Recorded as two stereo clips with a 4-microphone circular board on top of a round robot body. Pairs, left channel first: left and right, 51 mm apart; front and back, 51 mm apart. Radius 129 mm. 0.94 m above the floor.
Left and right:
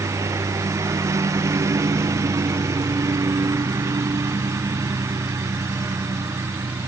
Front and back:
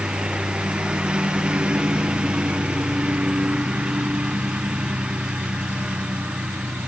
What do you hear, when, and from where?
0.0 s a lawn mower: 105° right; by 6.9 s 110° right